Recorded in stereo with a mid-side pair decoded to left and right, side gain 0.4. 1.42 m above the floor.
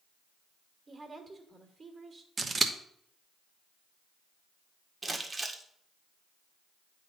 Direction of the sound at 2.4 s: 40° right.